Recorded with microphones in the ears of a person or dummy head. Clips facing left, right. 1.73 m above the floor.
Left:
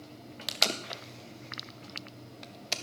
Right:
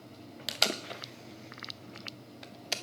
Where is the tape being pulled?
5° right (ahead or behind), 0.6 m.